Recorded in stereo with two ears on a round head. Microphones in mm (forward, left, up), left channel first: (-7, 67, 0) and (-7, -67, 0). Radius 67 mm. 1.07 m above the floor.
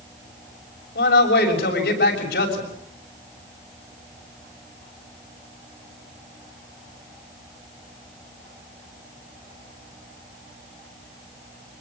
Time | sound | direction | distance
0.9 | a man speaking | 80° left | 6.5 m